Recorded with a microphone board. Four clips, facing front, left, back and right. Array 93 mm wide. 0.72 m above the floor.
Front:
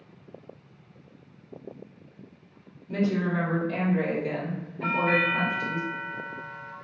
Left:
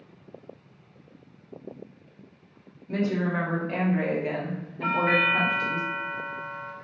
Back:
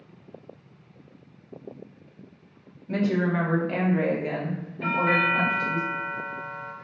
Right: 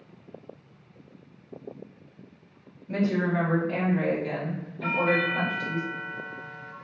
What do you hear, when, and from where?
2.9 s a woman speaking: straight behind, 1.2 m; by 5.8 s 70° left, 1.2 m
4.8 s a doorbell: 135° left, 1.9 m